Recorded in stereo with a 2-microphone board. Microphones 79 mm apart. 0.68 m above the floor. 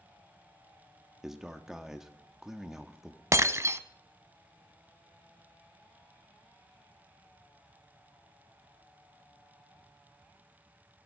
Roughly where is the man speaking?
Centre.